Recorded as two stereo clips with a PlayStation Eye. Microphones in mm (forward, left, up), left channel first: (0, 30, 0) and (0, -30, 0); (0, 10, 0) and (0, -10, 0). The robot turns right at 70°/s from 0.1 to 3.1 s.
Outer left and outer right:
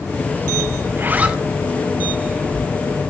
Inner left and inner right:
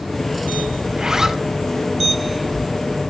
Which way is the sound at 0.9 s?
45° right.